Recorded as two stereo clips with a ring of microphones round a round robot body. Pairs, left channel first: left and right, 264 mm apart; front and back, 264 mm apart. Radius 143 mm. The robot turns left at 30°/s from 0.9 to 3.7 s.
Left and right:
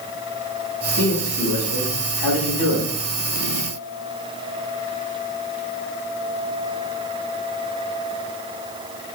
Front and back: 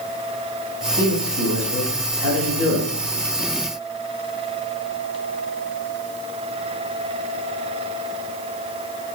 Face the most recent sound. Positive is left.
turn(degrees=50)